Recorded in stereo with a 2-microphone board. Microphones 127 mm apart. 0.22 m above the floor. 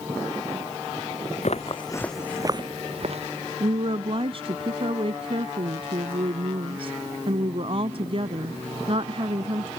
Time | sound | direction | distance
1.4 | footsteps | 65° left (ahead or behind) | ?
3.6 | a woman speaking | 50° right (ahead or behind) | ?